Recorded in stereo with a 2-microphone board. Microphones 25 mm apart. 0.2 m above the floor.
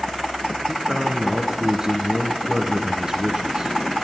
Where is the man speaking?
30° right (ahead or behind), 1.9 m.